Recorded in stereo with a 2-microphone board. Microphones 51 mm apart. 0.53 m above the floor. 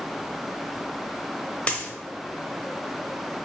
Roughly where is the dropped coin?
Left.